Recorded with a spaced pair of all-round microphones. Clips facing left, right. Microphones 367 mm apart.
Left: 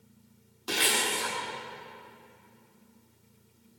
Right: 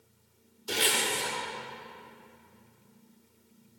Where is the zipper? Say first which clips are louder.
Even; 80° left, 1.3 m.